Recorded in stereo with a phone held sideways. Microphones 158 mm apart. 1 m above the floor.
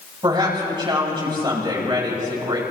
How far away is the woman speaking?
About 8 m.